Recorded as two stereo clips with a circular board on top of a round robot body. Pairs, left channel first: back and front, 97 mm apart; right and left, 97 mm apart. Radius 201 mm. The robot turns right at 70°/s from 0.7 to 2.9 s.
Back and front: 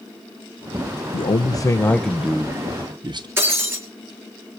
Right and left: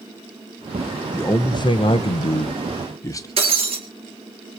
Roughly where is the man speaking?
Behind.